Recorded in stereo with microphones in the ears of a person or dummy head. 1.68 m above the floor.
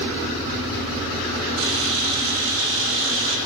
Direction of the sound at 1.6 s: 70° right (ahead or behind).